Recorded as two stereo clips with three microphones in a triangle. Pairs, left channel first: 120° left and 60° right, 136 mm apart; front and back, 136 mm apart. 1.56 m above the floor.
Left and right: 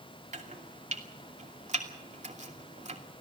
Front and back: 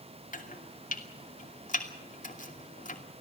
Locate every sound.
0.3 s chopping: 25° right, 2.5 m